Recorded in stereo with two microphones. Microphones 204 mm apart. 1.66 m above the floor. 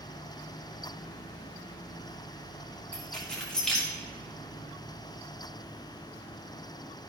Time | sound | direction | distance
2.9 | keys jangling | 5° left (ahead or behind) | 1.8 m